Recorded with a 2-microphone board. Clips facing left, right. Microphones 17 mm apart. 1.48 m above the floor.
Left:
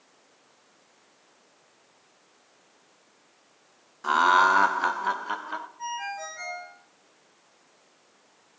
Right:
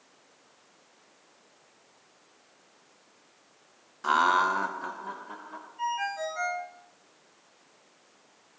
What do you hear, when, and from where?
4.0 s laughter: 5° right (ahead or behind), 0.5 m; by 5.7 s 85° left, 1.2 m
5.8 s a ringtone: 60° right (ahead or behind), 6.5 m